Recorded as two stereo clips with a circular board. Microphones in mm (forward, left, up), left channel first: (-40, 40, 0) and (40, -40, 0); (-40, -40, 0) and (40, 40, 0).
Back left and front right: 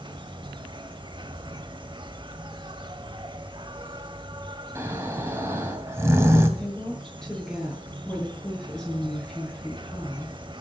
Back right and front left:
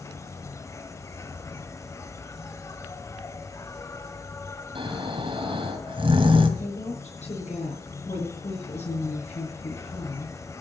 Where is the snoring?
15° left, 2 m.